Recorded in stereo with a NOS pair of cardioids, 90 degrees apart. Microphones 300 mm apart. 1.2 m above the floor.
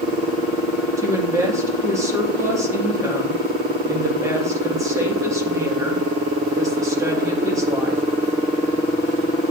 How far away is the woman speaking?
About 1.9 m.